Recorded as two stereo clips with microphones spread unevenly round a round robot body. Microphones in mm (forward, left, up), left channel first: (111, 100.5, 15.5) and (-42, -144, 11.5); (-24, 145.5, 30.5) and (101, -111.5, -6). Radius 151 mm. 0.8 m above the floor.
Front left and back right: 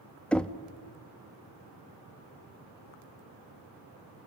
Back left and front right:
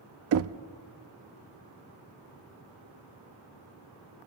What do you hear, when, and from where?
0.3 s knocking: 30° right, 0.6 m